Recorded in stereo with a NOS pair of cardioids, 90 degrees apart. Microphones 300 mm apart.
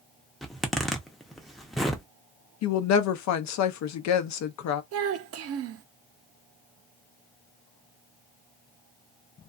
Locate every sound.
0.4 s a zipper: straight ahead, 0.6 m
2.6 s a woman speaking: 65° left, 0.7 m
4.9 s a child speaking: 55° right, 0.6 m